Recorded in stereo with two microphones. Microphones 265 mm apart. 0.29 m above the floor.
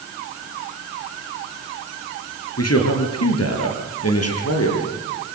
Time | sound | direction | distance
2.6 | a man speaking | 70° left (ahead or behind) | 4.5 m